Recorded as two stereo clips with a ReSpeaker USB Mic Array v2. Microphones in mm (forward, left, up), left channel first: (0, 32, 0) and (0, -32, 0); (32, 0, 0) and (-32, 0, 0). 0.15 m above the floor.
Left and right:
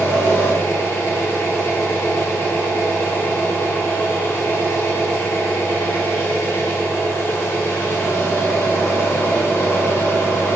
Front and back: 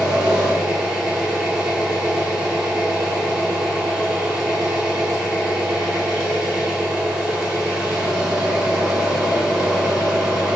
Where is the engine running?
105° left, 1.4 m.